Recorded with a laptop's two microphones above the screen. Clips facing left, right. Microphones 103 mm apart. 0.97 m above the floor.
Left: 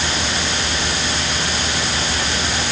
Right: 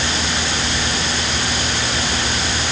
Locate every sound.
Only background noise.